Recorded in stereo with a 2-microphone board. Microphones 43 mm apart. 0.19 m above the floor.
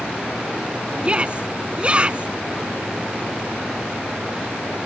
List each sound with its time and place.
1.0 s a shout: 30° right (ahead or behind)